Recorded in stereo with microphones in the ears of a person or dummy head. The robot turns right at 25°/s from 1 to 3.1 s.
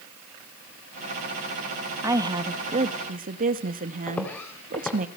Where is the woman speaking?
15° right (ahead or behind), 1.2 m; by 5.1 s 40° right (ahead or behind), 1.2 m.